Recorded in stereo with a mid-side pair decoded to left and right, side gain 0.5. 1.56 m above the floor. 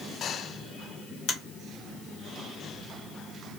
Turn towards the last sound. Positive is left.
turn(degrees=70)